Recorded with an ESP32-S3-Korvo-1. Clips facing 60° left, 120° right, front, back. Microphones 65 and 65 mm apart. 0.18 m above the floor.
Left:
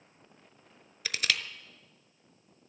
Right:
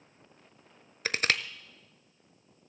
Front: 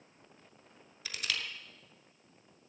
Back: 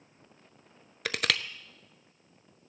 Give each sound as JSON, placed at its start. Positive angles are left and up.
{"t": 1.1, "sound": "crushing", "azimuth_deg": -170, "distance_m": 0.6}